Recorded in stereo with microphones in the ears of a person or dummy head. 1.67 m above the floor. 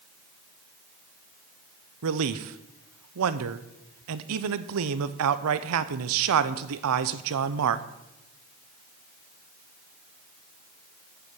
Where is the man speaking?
70° right (ahead or behind), 0.8 m.